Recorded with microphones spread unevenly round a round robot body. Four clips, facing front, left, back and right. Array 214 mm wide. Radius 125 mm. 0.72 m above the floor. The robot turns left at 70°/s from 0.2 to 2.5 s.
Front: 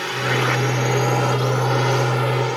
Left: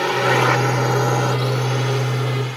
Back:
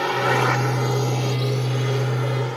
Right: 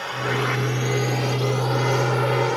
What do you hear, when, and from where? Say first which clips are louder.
0.0 s a drone: left 8 dB, back 2 dB; 110° left; by 2.6 s 50° right